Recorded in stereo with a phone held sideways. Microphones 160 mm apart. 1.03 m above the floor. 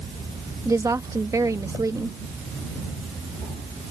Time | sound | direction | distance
0.7 | a woman speaking | 20° right (ahead or behind) | ?